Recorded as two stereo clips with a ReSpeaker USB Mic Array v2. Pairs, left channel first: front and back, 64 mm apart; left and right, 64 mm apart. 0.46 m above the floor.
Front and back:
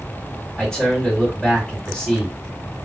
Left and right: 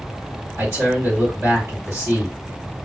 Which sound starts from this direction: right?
A man speaking, at 0.6 s.